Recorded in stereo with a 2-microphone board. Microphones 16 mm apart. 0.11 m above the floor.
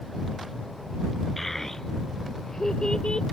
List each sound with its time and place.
1.4 s a child speaking: 15° left (ahead or behind); by 3.2 s 60° left (ahead or behind)